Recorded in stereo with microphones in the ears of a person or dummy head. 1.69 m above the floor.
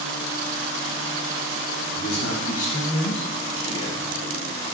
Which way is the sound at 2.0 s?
50° left (ahead or behind).